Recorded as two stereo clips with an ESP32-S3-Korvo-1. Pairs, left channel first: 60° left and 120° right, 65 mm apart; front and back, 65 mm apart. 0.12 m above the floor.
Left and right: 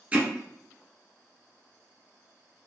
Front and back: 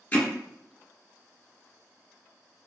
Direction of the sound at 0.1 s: 65° right.